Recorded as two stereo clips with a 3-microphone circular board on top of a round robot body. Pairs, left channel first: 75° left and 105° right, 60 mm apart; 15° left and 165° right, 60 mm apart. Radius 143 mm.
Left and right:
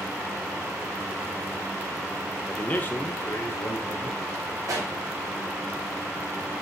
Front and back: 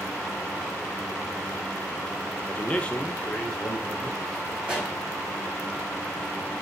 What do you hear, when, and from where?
2.5 s a man speaking: 25° left, 1.0 m; by 4.5 s 90° left, 2.5 m
4.6 s a pop: 90° right, 3 m